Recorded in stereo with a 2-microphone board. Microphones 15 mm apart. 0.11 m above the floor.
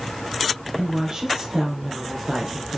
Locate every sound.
0.8 s a woman speaking: 55° right (ahead or behind), 3 m